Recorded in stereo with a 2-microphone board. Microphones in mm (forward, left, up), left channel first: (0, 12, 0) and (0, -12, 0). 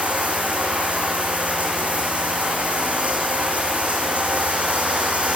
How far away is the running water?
About 4.5 m.